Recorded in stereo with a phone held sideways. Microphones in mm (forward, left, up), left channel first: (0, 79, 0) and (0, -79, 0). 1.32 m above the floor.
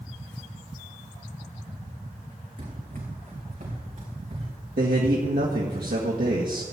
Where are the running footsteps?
60° right (ahead or behind), 4 m; by 4.5 s 45° right (ahead or behind), 5.5 m.